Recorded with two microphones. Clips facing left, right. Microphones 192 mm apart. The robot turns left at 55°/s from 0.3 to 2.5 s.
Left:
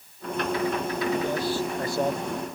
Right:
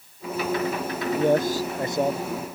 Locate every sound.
1.2 s a man speaking: 120° right; by 2.3 s straight behind